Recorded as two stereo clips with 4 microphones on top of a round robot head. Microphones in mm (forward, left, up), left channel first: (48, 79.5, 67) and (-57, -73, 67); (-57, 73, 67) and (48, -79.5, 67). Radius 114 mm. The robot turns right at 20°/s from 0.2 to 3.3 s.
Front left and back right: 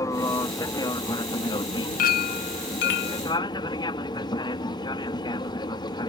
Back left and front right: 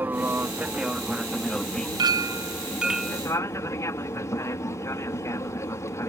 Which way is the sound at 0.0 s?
10° left.